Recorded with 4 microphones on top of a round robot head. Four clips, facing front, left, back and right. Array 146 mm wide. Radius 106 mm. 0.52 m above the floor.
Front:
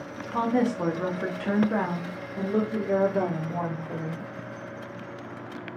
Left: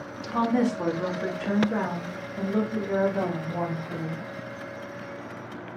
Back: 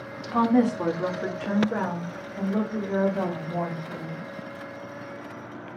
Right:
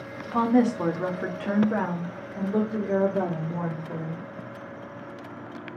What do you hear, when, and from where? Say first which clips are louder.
0.3 s a woman speaking: right 3 dB, back 4 dB; 140° right, 1.0 m; by 4.2 s 25° right, 2.5 m